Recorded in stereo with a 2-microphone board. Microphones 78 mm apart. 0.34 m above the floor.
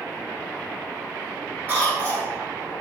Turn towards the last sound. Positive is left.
turn(degrees=-25)  # may be behind; listen again after turning